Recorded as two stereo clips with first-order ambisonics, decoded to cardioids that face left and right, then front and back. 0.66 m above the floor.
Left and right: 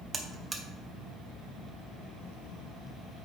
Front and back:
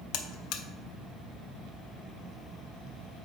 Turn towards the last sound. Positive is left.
turn(degrees=-15)